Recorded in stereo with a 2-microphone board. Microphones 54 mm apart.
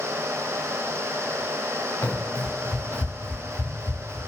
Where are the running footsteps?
85° left, 1.8 m; by 4.2 s 60° left (ahead or behind), 1.6 m.